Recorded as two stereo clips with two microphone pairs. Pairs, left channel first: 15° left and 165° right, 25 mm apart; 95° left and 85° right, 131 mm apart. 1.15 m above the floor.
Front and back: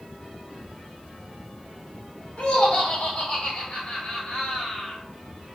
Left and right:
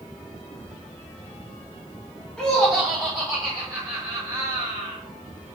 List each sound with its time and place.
2.4 s laughter: 10° left, 1.4 m; by 5.0 s 60° right, 1.3 m